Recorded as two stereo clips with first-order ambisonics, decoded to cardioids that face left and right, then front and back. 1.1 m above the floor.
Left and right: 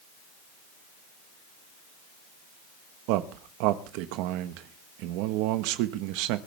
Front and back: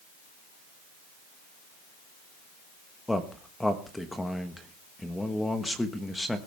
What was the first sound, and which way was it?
A man speaking, 85° right.